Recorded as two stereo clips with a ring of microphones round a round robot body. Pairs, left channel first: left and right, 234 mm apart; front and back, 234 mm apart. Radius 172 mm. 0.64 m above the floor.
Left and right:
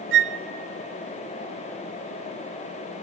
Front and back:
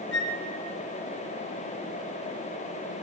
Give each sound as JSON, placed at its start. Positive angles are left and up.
{"t": 0.1, "sound": "a flute", "azimuth_deg": -55, "distance_m": 1.1}